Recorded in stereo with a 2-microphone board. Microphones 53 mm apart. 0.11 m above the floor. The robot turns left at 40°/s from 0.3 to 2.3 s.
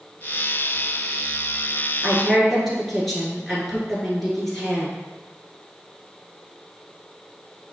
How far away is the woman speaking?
About 1.3 m.